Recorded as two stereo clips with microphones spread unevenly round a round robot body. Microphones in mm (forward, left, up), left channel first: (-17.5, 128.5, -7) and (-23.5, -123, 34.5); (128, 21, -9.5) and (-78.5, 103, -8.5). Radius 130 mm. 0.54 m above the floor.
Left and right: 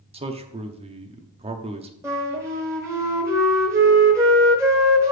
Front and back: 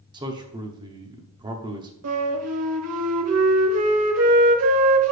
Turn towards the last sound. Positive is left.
turn(degrees=-175)